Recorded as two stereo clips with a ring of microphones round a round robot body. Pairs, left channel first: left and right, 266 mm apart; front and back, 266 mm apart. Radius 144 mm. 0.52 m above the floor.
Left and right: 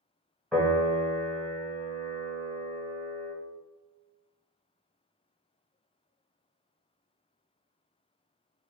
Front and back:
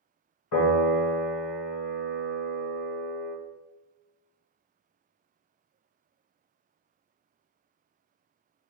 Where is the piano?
Straight ahead, 1.3 m.